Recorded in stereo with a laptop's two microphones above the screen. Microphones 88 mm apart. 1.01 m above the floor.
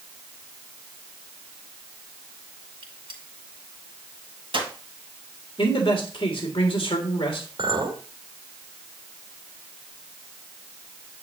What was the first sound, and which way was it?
A gunshot, 70° right (ahead or behind).